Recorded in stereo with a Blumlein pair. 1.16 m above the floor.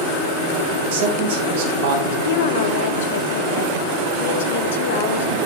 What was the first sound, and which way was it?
A man speaking, 55° right.